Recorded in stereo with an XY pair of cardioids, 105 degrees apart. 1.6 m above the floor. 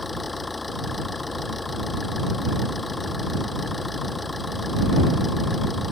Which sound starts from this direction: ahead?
An engine running, at 0.0 s.